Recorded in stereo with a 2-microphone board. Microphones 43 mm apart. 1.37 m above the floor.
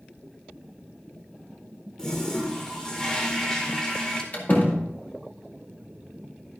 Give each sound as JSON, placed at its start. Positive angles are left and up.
{"t": 2.0, "sound": "a toilet flushing", "side_deg": 15, "distance_m": 1.9}
{"t": 4.3, "sound": "a door slam", "side_deg": 40, "distance_m": 2.0}